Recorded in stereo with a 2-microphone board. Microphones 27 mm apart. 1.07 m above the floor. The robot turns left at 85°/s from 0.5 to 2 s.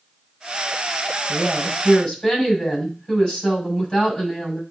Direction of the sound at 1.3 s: 145° right.